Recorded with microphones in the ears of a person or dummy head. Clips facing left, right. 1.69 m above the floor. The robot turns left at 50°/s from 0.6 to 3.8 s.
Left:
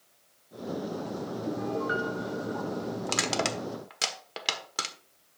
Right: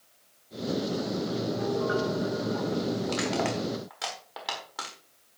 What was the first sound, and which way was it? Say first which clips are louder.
A piano: right 1 dB; 90° left.